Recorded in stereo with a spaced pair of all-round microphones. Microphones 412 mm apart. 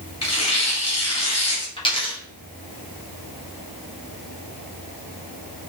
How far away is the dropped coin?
About 0.9 m.